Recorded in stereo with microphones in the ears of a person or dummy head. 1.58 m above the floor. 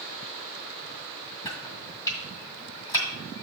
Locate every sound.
1.4 s chopping: 20° left (ahead or behind), 1.9 m